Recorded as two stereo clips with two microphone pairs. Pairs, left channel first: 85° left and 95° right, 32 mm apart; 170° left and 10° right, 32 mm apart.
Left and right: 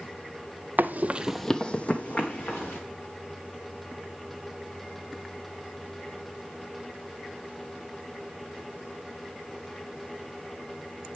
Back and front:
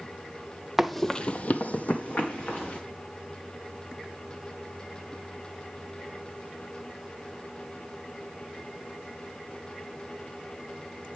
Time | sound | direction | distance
0.8 | running footsteps | 95° right | 0.7 m